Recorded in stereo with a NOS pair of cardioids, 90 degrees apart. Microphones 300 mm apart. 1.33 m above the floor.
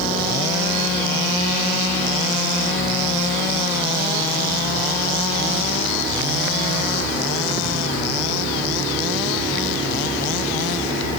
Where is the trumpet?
I don't hear a trumpet.